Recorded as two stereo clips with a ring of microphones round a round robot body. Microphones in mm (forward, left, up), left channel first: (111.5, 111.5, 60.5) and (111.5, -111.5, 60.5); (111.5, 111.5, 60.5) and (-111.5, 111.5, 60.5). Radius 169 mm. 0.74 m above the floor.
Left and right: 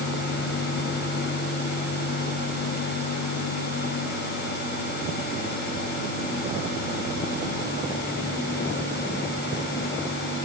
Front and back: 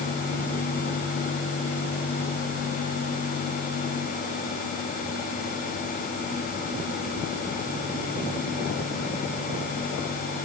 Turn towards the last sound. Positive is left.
No sound to turn to.